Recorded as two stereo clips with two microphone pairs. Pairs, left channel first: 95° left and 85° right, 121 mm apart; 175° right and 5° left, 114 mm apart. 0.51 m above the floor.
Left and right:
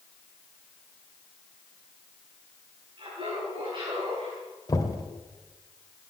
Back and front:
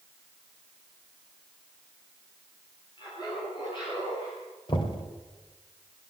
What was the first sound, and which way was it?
Laughter, 130° right.